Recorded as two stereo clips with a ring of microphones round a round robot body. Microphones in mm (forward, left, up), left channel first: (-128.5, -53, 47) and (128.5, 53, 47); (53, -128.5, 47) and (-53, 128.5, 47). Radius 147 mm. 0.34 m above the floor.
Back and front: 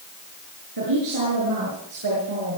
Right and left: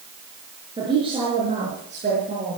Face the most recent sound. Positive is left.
turn(degrees=50)